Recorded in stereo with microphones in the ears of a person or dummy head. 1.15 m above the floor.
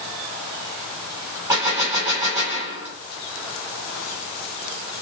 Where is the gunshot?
15° right (ahead or behind), 1.7 m.